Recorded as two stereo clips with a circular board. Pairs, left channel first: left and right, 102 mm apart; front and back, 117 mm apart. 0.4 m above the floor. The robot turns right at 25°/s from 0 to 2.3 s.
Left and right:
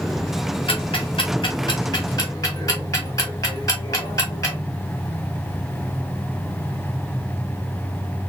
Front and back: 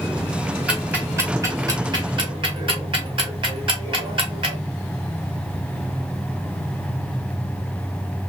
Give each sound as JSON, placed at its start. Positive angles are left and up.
{"t": 0.7, "sound": "ticking", "azimuth_deg": 100, "distance_m": 1.6}